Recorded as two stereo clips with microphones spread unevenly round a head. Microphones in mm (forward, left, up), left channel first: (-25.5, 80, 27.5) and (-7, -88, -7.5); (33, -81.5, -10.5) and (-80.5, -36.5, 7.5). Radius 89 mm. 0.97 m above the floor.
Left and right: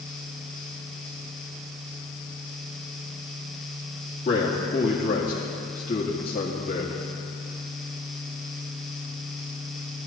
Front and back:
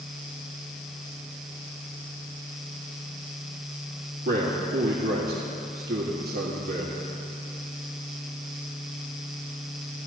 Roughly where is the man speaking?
Behind left.